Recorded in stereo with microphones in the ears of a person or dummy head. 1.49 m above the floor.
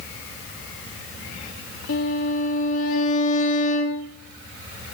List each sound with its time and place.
1.9 s a violin: 70° left (ahead or behind), 2.0 m